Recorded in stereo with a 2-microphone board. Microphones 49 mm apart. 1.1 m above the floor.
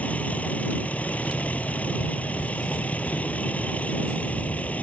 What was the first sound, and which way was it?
A vehicle, 30° left (ahead or behind).